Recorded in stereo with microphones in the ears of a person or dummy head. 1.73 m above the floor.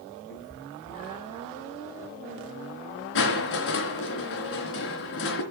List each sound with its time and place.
0.3 s a cat meowing: 55° left (ahead or behind), 2.5 m; by 1.4 s 20° left (ahead or behind), 1.8 m
3.1 s crushing: 60° left (ahead or behind), 3.5 m